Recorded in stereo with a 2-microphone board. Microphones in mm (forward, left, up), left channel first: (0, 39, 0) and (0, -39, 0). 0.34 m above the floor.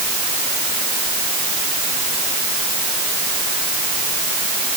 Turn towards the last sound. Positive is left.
No sound to turn to.